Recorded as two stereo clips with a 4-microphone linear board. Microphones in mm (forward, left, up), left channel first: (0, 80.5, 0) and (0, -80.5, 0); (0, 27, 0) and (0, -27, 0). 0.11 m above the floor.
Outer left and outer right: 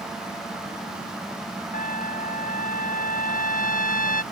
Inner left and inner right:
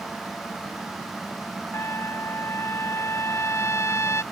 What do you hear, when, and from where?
1.7 s a trumpet: 55° left (ahead or behind)